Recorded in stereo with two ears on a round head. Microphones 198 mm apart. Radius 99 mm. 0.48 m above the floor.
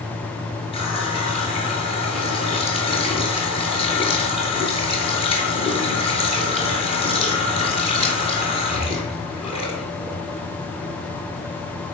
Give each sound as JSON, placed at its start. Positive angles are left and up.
{"t": 0.7, "sound": "a running tap", "side_deg": 25, "distance_m": 5.0}